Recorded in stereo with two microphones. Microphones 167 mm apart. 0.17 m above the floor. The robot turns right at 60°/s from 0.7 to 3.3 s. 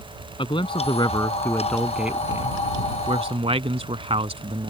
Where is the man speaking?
110° left; by 4.7 s 95° right.